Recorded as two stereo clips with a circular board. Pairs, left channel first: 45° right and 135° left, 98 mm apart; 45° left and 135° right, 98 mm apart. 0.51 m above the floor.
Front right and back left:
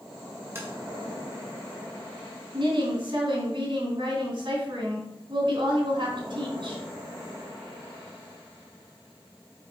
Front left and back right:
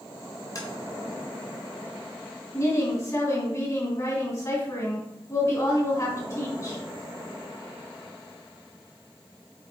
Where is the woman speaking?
100° left, 3 m.